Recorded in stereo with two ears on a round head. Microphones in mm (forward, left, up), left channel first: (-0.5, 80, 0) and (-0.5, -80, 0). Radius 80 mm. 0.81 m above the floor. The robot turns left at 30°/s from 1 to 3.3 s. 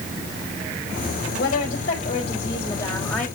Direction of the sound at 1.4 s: 65° left.